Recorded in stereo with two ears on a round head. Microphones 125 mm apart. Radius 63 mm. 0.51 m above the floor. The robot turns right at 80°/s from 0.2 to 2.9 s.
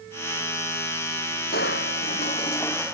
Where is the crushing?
75° left; by 2.9 s 175° right.